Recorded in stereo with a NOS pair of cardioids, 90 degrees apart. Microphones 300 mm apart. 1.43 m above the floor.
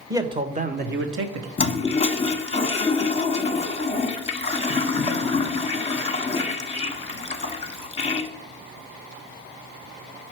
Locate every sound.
0.1 s a man speaking: 10° right, 1.2 m; by 1.5 s 65° right, 1.1 m
1.6 s a toilet flushing: 20° left, 1.0 m